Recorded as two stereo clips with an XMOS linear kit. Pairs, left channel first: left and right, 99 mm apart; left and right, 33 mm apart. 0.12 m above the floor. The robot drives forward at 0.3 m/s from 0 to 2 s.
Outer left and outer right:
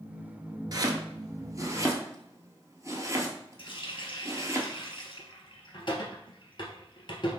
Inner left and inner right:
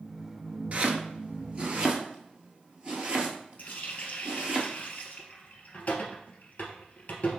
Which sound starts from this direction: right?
Chopping, at 0.7 s.